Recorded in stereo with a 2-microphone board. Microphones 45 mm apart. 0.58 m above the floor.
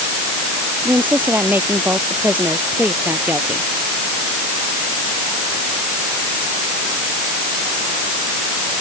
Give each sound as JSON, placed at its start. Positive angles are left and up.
{"t": 0.8, "sound": "a woman speaking", "side_deg": -45}